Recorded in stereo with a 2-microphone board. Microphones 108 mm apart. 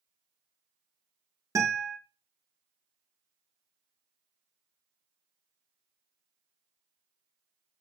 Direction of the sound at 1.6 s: 30° right (ahead or behind).